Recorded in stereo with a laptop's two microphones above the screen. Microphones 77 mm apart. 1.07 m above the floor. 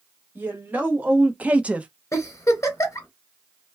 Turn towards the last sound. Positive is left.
turn(degrees=40)  # may be behind; listen again after turning